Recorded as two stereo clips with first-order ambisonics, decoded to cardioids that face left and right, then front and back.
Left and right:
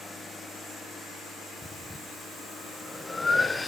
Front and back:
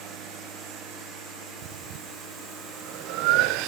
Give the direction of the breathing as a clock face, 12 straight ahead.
6 o'clock.